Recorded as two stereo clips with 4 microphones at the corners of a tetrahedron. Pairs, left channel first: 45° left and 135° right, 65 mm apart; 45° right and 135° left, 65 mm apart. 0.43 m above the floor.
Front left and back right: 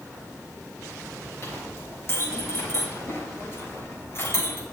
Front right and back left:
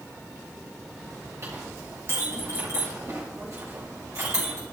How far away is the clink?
About 4.5 m.